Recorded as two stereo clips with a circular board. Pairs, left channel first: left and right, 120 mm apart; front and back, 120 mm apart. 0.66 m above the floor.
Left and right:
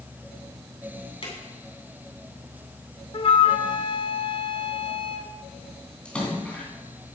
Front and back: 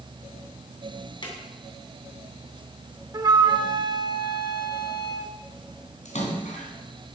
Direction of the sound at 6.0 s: 10° left.